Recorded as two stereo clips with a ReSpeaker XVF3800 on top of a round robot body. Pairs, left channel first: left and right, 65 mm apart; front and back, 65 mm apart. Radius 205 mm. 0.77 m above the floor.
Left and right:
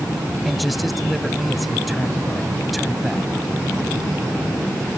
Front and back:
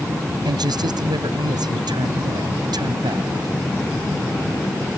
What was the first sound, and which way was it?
A man speaking, straight behind.